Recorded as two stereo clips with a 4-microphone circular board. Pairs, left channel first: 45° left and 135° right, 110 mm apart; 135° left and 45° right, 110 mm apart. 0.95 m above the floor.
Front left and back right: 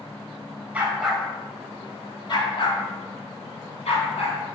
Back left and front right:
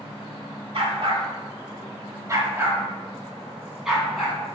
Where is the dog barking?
65° right, 1.2 m; by 4.4 s 45° left, 2.5 m.